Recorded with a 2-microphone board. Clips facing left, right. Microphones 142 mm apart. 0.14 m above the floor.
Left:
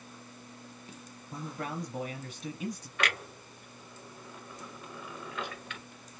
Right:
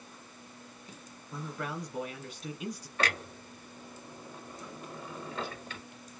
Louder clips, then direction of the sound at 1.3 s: Even; 25° left (ahead or behind).